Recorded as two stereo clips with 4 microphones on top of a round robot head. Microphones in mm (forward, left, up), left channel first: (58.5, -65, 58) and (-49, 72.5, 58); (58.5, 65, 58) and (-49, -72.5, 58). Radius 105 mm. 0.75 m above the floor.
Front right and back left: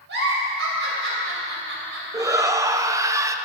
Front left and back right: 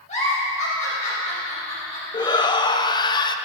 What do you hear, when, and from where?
0.1 s a giggle: 105° left, 4 m
2.1 s a shout: 80° left, 0.7 m